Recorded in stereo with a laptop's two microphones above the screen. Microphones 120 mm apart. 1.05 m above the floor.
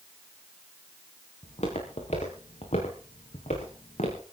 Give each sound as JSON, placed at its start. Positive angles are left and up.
{"t": 1.4, "sound": "footsteps", "side_deg": 60, "distance_m": 6.0}